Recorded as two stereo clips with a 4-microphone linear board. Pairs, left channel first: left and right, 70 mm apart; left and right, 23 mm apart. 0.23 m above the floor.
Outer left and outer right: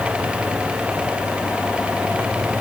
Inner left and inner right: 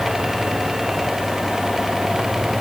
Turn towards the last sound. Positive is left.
No sound to turn to.